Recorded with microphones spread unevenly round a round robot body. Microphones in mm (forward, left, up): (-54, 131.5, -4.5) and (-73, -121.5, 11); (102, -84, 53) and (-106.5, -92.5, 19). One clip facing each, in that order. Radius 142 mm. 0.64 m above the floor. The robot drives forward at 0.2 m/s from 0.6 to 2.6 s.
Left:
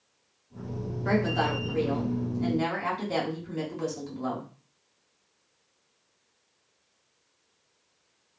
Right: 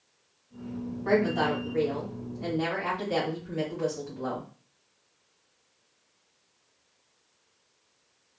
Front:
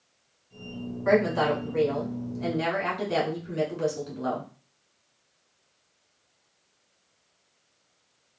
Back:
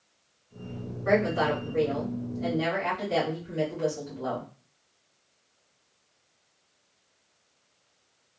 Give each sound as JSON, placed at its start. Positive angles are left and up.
{"t": 1.1, "sound": "a woman speaking", "azimuth_deg": 50, "distance_m": 1.8}